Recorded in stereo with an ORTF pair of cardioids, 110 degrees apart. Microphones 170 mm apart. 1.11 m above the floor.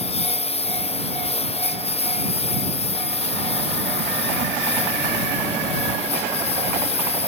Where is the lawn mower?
35° left.